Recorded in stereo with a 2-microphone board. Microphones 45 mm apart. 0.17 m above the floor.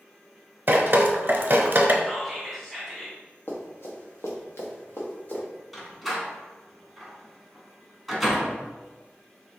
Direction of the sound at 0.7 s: 50° right (ahead or behind).